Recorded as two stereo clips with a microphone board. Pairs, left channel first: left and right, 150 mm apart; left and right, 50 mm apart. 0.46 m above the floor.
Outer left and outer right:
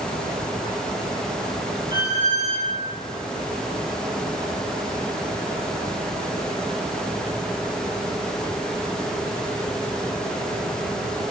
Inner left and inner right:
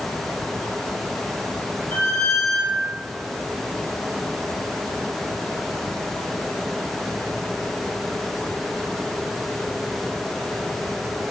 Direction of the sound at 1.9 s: 15° left (ahead or behind).